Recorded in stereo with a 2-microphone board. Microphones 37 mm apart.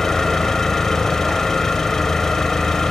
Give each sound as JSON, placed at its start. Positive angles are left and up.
{"t": 0.0, "sound": "an engine running", "side_deg": 10, "distance_m": 1.1}